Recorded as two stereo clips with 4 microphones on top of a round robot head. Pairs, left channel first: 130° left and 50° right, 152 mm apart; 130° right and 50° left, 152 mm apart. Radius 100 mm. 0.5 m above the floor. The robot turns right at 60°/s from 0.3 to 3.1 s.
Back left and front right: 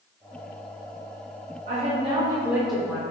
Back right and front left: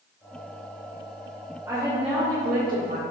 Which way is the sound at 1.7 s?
20° right.